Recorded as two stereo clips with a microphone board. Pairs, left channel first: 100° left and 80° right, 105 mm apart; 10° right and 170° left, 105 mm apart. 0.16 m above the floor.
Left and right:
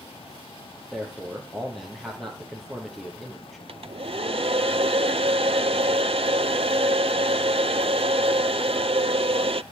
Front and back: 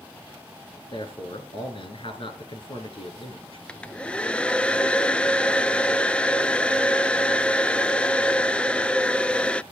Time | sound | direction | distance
0.9 | a man speaking | 10° left | 3.5 m
3.7 | a hair dryer | 90° right | 0.5 m